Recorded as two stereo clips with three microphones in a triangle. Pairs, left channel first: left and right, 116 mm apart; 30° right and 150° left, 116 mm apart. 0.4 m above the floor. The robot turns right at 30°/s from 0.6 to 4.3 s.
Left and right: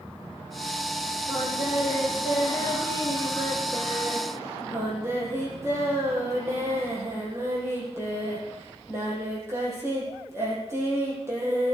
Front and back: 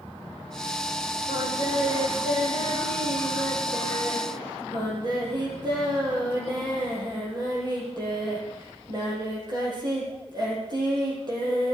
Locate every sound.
1.3 s singing: 110° left, 5.5 m; by 11.8 s 155° right, 5.5 m